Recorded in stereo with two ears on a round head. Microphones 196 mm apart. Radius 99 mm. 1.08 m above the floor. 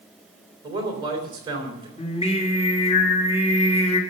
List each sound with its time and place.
0.6 s a man speaking: 20° right (ahead or behind), 3.5 m
2.0 s singing: 30° left (ahead or behind), 2 m